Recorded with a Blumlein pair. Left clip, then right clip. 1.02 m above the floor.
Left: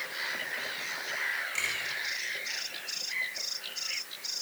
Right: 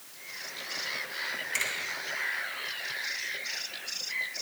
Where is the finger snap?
65° right, 7 m.